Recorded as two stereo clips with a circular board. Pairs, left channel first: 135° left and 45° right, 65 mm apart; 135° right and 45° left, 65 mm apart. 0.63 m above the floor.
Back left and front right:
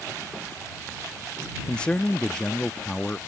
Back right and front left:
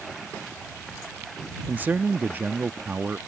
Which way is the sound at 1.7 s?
75° left.